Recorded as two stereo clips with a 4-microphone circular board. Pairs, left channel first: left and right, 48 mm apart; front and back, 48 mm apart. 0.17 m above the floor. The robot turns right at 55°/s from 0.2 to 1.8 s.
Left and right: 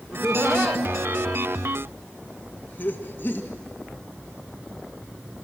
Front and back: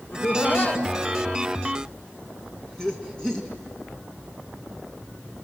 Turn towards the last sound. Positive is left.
turn(degrees=70)